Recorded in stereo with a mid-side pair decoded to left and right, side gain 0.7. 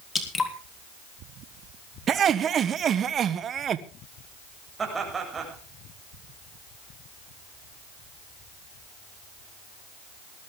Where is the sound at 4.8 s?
25° right, 7.5 m.